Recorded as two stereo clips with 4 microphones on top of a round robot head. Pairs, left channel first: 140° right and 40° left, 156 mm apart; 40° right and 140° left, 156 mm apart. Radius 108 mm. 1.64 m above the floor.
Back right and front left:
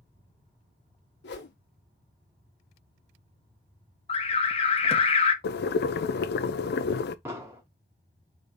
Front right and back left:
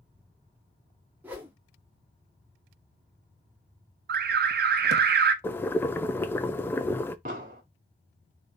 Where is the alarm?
165° left, 0.8 m.